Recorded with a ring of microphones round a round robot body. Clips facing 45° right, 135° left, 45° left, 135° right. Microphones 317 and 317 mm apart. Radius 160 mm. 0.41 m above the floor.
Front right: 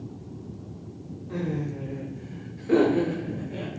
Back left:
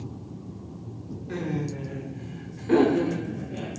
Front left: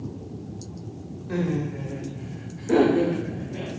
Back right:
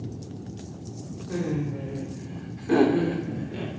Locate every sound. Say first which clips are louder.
1.3 s laughter: even, front left 2 dB; 120° left, 1.8 m; by 3.7 s 110° right, 1.6 m